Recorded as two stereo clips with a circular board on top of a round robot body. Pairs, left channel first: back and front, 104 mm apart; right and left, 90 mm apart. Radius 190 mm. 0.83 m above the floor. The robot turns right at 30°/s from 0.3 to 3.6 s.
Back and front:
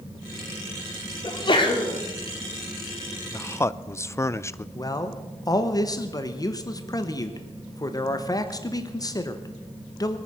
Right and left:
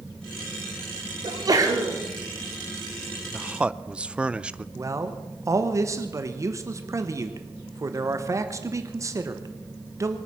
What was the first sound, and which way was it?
A sneeze, 130° left.